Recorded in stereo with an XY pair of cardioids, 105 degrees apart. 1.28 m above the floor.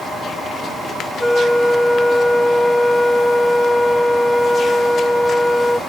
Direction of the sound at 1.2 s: 15° left.